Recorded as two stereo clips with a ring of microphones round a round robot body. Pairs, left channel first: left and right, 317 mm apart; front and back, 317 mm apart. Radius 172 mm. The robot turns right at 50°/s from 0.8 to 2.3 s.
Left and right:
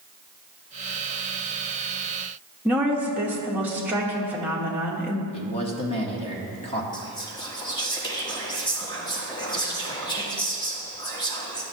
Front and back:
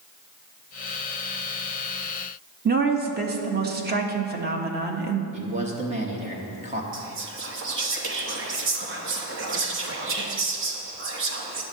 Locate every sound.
2.6 s a woman speaking: 170° right, 0.9 m
5.3 s a man speaking: 140° left, 1.0 m
6.9 s whispering: 160° left, 0.9 m